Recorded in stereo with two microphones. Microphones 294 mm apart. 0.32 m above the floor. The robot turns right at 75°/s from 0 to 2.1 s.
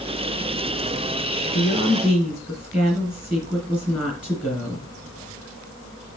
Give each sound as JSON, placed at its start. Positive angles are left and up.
{"t": 1.5, "sound": "a woman speaking", "azimuth_deg": 140, "distance_m": 3.0}